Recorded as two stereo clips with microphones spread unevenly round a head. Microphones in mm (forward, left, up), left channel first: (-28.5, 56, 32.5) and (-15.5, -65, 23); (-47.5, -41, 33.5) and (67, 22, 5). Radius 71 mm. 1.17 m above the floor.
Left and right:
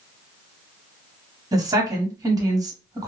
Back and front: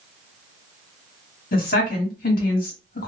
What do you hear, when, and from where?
1.5 s a woman speaking: 140° right, 1.2 m